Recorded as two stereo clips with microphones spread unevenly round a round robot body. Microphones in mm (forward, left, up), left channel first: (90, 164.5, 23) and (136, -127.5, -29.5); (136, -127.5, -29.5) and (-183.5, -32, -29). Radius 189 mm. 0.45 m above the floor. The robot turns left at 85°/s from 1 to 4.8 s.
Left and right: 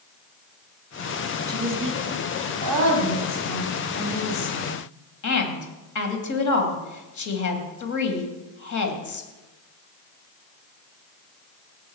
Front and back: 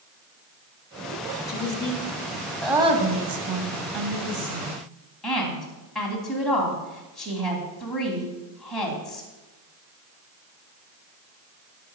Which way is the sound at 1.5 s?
5° right.